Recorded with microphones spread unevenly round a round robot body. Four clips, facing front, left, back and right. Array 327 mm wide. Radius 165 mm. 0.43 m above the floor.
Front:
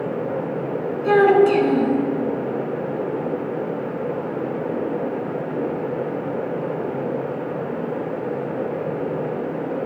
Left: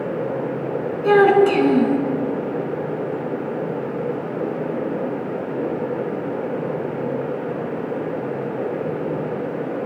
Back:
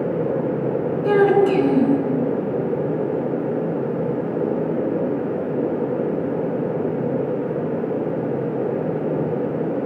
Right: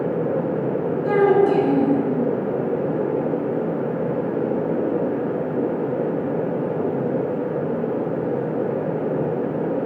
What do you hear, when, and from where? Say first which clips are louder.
1.0 s a child speaking: left 3 dB, front 2 dB; 80° left, 3.5 m